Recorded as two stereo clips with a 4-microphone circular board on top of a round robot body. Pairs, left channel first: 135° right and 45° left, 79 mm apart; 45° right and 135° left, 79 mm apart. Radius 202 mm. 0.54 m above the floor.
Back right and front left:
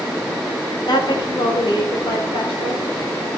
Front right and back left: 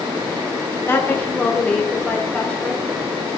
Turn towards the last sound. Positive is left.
turn(degrees=-130)